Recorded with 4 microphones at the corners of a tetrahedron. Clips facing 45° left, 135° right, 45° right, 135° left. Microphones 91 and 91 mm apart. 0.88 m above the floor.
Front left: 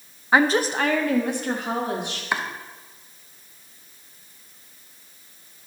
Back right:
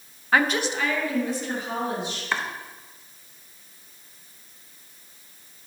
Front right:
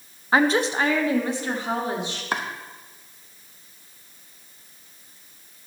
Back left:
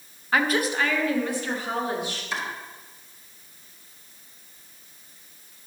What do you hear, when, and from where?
0.3 s a woman speaking: 10° right, 0.5 m; by 2.2 s 25° left, 2 m
2.3 s chopping: 30° right, 0.8 m